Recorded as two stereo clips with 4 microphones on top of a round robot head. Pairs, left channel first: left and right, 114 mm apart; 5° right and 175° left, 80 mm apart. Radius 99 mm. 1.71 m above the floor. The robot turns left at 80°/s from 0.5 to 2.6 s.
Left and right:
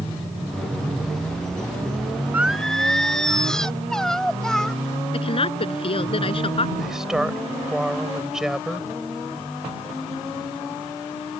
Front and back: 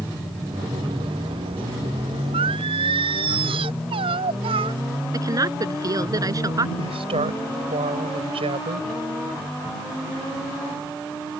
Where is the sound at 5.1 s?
130° left.